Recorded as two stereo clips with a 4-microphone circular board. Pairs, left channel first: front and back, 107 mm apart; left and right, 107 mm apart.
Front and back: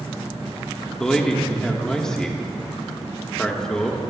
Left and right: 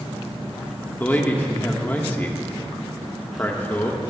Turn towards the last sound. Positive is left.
turn(degrees=70)